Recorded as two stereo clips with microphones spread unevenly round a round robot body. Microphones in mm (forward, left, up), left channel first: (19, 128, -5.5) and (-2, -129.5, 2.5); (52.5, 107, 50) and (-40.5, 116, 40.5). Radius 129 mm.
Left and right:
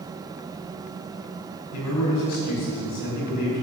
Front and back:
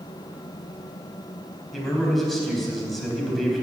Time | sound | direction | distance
1.7 | a man speaking | 85° left | 4 m